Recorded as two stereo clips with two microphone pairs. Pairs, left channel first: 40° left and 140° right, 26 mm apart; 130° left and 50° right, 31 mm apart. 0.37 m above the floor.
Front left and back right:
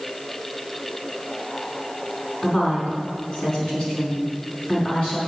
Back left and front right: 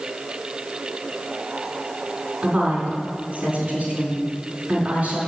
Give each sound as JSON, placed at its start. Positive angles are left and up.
{"t": 2.4, "sound": "a woman speaking", "azimuth_deg": -15, "distance_m": 4.0}